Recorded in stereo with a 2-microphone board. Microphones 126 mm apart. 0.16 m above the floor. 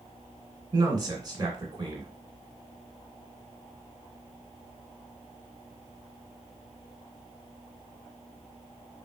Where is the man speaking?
35° right (ahead or behind), 1.6 m.